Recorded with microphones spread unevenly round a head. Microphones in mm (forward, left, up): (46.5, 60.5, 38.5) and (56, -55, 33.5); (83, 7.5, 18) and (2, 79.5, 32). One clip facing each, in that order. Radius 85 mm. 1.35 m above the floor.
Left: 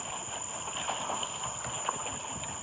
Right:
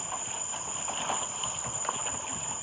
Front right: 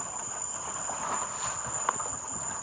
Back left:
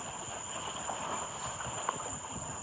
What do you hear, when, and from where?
0.0 s an insect: 70° right, 9 m